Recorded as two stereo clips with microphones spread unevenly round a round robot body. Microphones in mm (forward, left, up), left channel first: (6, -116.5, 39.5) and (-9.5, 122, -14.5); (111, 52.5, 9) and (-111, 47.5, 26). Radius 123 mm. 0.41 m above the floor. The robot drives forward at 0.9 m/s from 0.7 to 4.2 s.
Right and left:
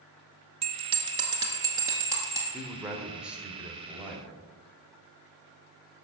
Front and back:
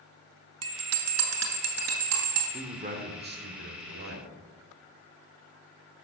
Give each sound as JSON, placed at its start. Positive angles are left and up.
{"t": 0.6, "sound": "a bell", "azimuth_deg": 160, "distance_m": 1.0}
{"t": 2.5, "sound": "a man speaking", "azimuth_deg": 145, "distance_m": 1.5}